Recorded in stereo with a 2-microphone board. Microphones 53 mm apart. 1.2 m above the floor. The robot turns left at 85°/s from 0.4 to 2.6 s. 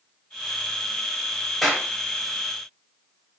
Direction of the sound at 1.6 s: Centre (ahead or behind).